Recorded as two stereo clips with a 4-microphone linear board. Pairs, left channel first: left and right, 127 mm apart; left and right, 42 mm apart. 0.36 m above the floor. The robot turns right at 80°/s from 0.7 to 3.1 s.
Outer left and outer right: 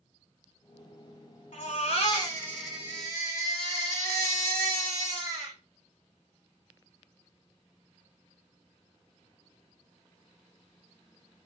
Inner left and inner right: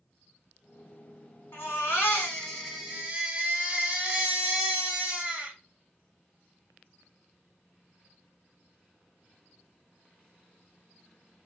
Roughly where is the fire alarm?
No fire alarm in this recording.